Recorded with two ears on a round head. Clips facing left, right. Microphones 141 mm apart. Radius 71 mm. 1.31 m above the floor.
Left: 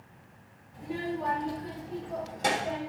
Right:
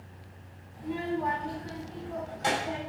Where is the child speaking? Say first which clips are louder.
Right 2 dB; 55° left (ahead or behind), 3 m; by 2.8 s 65° left (ahead or behind), 4.5 m.